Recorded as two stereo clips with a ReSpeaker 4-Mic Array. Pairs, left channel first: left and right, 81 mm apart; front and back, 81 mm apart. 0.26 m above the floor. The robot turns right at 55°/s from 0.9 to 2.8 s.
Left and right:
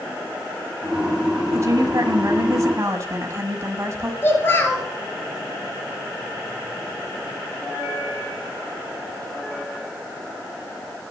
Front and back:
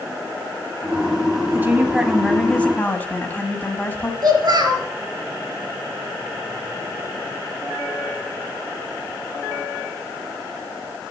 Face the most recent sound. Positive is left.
turn(degrees=150)